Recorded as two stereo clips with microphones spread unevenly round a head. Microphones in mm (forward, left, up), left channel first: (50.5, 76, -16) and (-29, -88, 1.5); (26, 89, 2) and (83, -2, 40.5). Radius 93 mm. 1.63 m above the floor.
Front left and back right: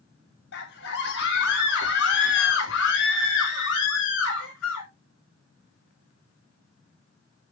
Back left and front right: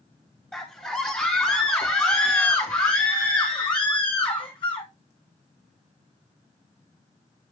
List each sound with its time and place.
0.5 s a scream: 40° left, 3 m; by 4.9 s 80° left, 3 m